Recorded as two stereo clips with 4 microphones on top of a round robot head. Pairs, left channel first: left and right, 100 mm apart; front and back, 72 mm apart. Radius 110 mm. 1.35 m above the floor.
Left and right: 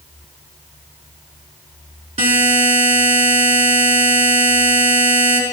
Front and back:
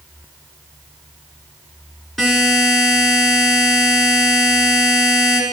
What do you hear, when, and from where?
2.2 s a buzzer: 85° right, 3.5 m